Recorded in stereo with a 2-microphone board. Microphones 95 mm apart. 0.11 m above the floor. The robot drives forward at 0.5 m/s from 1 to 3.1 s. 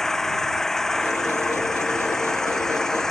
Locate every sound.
0.0 s an engine running: 5° left (ahead or behind)